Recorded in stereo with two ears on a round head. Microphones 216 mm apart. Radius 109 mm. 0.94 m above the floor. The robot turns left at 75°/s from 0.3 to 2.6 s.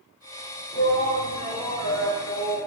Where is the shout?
160° left, 3 m; by 2.7 s 20° left, 3 m.